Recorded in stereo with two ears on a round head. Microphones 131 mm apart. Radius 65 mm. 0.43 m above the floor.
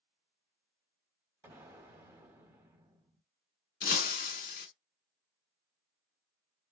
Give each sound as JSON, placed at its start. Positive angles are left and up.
{"t": 1.4, "sound": "an explosion", "side_deg": -15, "distance_m": 0.9}
{"t": 3.8, "sound": "breaking glass", "side_deg": 65, "distance_m": 0.7}